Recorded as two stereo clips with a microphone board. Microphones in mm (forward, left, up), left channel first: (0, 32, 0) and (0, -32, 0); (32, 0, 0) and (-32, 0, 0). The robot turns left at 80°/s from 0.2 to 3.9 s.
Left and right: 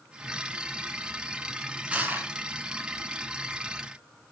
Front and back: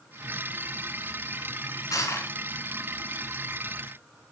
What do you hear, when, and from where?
1.9 s crushing: 20° right, 3 m; by 2.3 s 55° right, 3 m